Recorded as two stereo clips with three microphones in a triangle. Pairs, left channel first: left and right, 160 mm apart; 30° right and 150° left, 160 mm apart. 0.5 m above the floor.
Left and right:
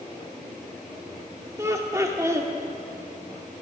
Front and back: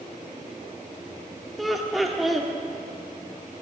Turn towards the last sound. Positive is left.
turn(degrees=-120)